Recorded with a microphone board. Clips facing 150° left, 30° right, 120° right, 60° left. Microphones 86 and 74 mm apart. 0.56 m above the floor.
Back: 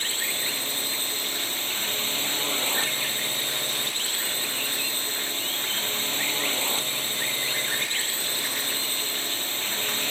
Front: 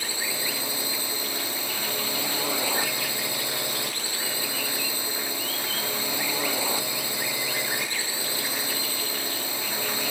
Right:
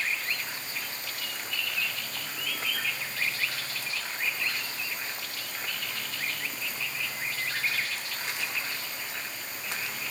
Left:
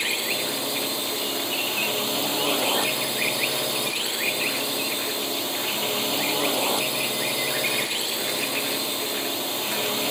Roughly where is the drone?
Ahead left.